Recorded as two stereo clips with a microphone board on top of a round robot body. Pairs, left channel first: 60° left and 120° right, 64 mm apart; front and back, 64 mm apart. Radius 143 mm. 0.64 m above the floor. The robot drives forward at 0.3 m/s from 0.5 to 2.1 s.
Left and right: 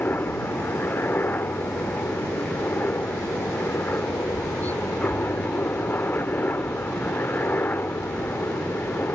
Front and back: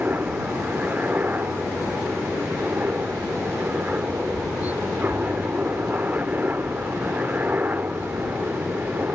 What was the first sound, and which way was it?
A helicopter, 120° left.